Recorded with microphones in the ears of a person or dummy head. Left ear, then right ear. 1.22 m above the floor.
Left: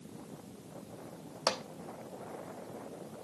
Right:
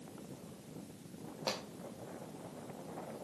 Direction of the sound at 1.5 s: 55° left (ahead or behind).